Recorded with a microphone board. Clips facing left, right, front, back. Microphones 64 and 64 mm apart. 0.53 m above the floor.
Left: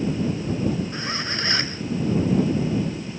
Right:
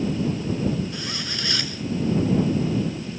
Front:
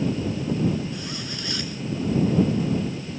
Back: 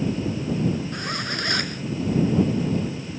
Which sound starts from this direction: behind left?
A zipper, at 0.9 s.